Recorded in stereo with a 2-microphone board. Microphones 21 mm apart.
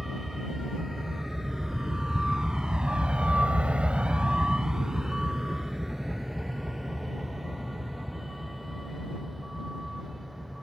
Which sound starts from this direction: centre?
A vehicle, at 0.0 s.